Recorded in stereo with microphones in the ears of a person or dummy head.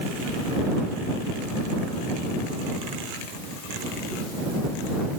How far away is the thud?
I don't hear a thud.